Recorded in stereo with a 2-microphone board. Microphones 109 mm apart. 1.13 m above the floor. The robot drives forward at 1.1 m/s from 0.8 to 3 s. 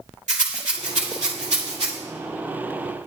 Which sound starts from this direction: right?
A rattle, at 0.3 s.